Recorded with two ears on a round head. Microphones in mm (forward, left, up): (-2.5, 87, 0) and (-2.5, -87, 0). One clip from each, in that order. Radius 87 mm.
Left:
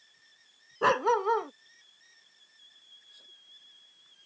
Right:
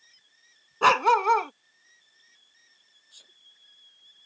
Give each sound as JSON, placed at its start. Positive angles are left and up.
{"t": 0.8, "sound": "a dog barking", "side_deg": -65}
{"t": 3.1, "sound": "a sneeze", "side_deg": -60}